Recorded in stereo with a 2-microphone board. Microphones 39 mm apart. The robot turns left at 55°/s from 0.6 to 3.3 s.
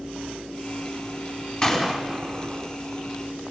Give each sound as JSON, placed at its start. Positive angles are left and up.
{"t": 1.6, "sound": "a gunshot", "side_deg": 20, "distance_m": 5.0}